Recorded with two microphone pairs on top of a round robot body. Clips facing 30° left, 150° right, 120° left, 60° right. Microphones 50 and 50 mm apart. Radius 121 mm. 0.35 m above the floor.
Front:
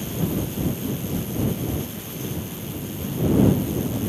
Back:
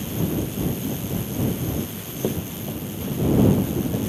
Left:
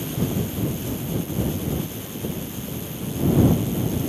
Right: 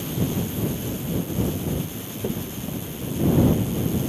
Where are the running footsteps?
130° right.